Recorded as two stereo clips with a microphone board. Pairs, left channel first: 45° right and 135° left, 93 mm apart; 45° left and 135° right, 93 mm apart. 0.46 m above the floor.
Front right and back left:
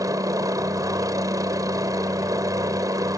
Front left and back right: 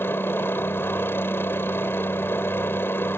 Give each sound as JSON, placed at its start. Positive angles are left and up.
{"t": 0.0, "sound": "a helicopter", "azimuth_deg": 100}